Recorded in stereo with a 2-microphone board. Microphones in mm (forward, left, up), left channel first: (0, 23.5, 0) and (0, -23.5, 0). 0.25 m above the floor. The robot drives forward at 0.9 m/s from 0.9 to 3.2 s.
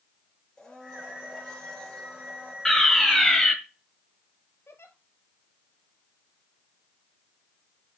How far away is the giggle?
About 1.5 m.